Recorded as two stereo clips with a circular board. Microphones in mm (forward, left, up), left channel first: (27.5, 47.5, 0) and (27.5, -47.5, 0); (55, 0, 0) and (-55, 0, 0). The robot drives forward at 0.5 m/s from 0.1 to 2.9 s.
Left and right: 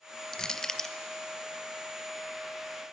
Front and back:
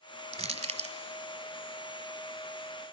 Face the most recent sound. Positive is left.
turn(degrees=180)